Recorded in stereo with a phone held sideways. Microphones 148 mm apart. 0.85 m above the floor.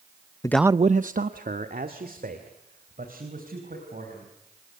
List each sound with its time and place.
0.4 s a man speaking: 25° left (ahead or behind), 0.5 m; by 4.3 s 65° right (ahead or behind), 6 m